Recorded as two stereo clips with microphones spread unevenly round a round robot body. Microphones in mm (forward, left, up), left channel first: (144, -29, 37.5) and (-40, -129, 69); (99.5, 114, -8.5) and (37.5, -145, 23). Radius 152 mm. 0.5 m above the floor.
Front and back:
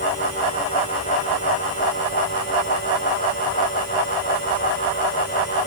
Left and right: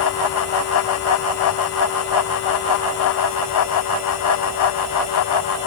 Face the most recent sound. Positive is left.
No sound to turn to.